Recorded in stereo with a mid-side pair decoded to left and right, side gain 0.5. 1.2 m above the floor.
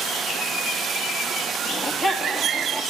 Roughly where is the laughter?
Ahead left.